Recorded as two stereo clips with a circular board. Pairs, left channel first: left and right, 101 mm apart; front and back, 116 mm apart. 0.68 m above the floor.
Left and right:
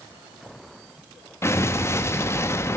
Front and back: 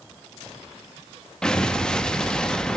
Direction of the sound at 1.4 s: 75° left.